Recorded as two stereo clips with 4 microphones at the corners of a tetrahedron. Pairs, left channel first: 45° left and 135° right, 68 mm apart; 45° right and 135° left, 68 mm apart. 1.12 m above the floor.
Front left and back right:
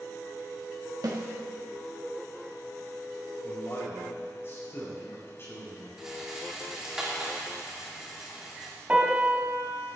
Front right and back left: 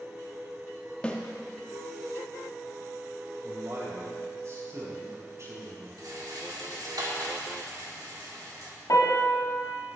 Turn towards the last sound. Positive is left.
turn(degrees=-70)